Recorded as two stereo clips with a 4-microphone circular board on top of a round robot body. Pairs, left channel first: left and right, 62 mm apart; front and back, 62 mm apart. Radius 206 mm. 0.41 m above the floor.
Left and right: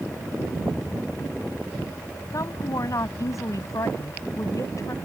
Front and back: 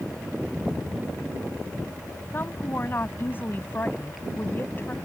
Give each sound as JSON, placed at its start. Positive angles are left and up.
{"t": 2.3, "sound": "a woman speaking", "azimuth_deg": 60}